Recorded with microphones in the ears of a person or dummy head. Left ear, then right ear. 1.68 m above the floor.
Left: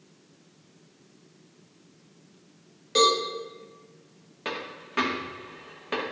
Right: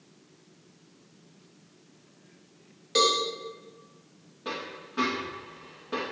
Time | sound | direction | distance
3.0 | a cowbell | centre (ahead or behind) | 0.9 m
4.5 | a dropped coin | 30° left (ahead or behind) | 1.0 m